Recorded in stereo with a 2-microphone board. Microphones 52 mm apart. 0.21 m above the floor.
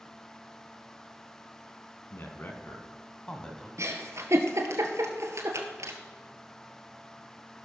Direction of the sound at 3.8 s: 70° right (ahead or behind).